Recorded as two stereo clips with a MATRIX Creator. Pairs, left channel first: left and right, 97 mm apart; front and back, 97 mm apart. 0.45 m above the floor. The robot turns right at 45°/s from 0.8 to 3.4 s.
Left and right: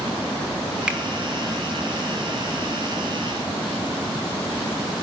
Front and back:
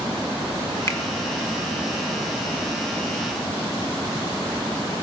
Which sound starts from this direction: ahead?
A finger snap, at 0.9 s.